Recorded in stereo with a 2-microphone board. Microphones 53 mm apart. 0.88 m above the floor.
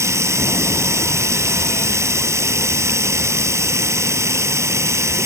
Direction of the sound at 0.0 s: 65° right (ahead or behind).